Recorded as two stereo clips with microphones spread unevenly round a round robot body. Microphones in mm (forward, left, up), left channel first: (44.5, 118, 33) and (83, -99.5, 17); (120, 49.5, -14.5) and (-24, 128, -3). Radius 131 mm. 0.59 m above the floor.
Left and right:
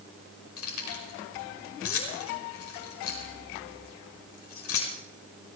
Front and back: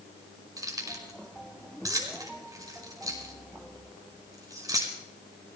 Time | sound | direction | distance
0.6 | keys jangling | 80° left | 5 m